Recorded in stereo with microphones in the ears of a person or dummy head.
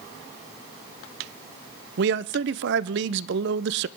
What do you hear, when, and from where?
2.0 s a man speaking: 60° right (ahead or behind), 0.7 m